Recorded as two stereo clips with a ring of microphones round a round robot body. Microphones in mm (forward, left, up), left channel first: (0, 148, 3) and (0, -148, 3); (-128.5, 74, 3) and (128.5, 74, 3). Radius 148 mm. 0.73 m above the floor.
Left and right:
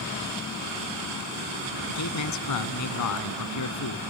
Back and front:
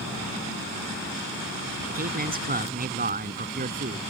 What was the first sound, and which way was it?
A man speaking, 55° left.